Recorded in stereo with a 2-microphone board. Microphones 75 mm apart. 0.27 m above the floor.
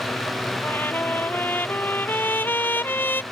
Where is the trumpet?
25° left (ahead or behind).